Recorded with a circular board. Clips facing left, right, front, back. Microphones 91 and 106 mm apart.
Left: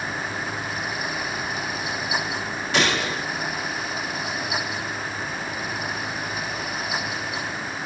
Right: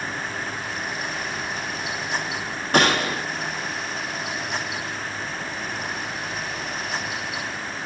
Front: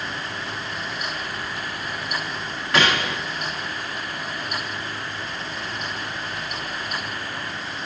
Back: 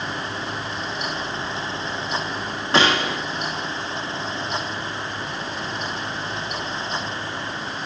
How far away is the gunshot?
About 1.4 m.